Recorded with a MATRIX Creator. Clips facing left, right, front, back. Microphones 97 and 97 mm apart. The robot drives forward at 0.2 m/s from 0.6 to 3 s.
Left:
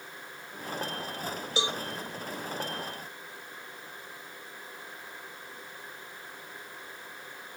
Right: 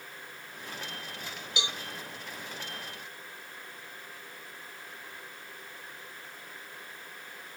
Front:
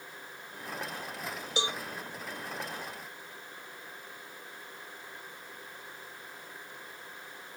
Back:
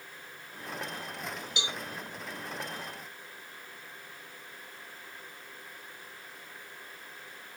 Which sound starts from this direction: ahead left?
A cowbell, at 1.6 s.